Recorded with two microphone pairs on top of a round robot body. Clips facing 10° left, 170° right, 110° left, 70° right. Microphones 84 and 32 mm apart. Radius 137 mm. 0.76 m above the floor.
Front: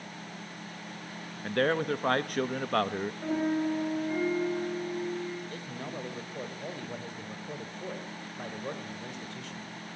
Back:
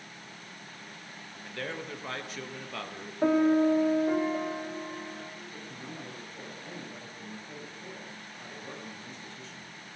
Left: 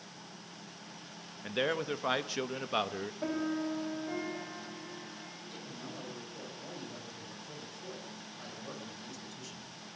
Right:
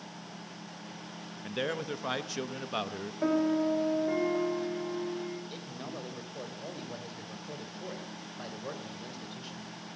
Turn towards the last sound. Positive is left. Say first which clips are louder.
# front 4 dB, right 4 dB
turn(degrees=-10)